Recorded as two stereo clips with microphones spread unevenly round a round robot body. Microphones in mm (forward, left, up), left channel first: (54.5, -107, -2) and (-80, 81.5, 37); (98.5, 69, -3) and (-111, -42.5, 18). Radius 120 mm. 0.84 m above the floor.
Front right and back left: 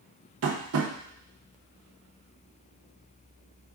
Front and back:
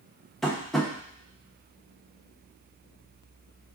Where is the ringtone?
No ringtone in this recording.